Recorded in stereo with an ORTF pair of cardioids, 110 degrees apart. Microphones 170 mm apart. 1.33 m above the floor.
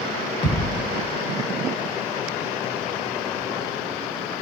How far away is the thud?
About 2 m.